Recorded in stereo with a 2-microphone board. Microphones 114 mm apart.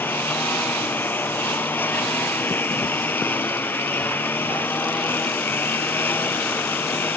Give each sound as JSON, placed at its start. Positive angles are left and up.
{"t": 0.0, "sound": "a lawn mower", "side_deg": 15}